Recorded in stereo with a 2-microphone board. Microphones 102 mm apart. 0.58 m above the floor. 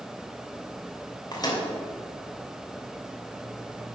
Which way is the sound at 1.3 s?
40° left (ahead or behind).